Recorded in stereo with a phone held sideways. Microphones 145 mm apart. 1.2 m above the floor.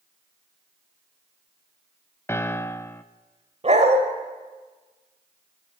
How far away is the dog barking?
About 1.6 m.